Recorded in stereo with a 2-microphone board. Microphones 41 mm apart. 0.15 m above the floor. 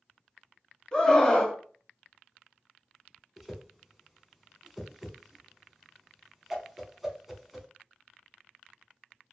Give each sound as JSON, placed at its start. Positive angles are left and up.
{"t": 0.9, "sound": "a scream", "side_deg": 20, "distance_m": 1.3}
{"t": 3.4, "sound": "a whoosh", "side_deg": -5, "distance_m": 0.7}